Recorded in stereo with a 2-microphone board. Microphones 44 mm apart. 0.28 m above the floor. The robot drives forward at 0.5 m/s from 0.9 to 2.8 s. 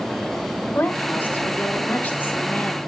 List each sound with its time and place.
0.8 s a woman speaking: 50° left (ahead or behind), 1.4 m; by 2.8 s 40° left (ahead or behind), 1.7 m